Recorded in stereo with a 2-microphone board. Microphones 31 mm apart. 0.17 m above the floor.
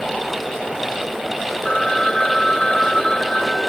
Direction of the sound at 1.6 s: 20° left (ahead or behind).